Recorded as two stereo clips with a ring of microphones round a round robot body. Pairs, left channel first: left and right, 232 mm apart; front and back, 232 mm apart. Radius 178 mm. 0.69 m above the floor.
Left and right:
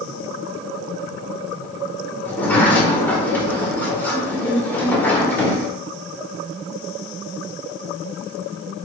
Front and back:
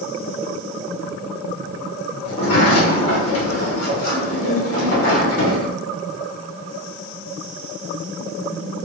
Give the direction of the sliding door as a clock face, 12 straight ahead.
12 o'clock.